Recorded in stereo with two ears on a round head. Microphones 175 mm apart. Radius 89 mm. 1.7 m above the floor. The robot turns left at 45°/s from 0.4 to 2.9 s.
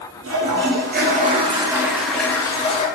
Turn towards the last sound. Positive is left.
turn(degrees=145)